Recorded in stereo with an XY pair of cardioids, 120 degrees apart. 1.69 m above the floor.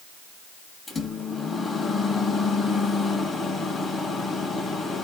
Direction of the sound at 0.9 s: 30° left.